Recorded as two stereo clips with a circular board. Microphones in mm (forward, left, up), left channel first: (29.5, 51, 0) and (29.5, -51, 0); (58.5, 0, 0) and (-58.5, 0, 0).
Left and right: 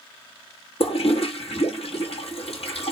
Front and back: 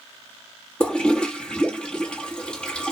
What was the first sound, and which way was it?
A toilet flushing, 80° left.